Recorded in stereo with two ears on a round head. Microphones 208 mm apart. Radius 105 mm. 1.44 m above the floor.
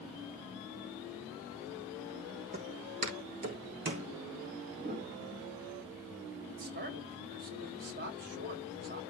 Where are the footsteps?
30° right (ahead or behind), 4 m; by 4.1 s 40° right (ahead or behind), 4.5 m.